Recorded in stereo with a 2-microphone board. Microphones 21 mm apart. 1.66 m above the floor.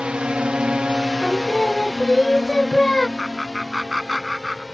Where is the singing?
30° left (ahead or behind).